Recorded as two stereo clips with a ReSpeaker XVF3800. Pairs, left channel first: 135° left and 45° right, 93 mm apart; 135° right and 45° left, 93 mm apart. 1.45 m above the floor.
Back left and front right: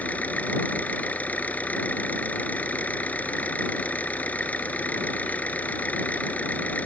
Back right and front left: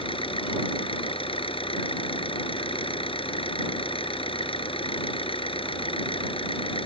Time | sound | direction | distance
0.0 | an engine running | 150° right | ?